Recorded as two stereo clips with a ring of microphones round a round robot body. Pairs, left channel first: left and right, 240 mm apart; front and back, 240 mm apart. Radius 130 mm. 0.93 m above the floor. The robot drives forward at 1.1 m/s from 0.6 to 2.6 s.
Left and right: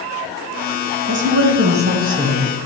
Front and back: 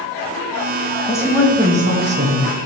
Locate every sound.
1.1 s a woman speaking: 70° right, 1.1 m; by 2.5 s 150° right, 1.6 m